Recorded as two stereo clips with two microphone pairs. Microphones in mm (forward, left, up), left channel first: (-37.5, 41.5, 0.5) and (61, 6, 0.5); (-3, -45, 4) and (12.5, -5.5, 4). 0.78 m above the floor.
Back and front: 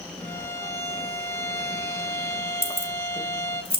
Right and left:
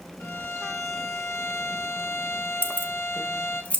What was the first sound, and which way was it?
A violin, 130° right.